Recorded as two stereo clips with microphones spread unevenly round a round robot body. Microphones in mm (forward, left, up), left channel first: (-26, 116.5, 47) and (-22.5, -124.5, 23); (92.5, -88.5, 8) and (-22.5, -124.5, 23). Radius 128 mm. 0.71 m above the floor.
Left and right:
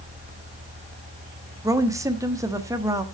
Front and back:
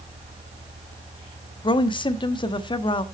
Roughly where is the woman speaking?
Ahead.